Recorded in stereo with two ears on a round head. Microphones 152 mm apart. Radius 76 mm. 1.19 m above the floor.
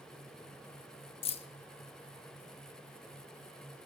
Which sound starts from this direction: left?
Keys jangling, at 1.2 s.